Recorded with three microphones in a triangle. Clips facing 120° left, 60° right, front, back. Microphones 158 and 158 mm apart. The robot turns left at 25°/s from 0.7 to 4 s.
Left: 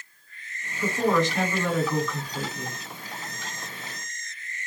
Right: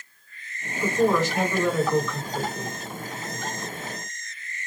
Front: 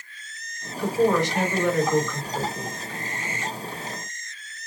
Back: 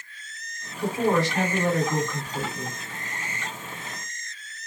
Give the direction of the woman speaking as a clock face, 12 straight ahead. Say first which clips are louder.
Right 2 dB, front 2 dB; 4 o'clock.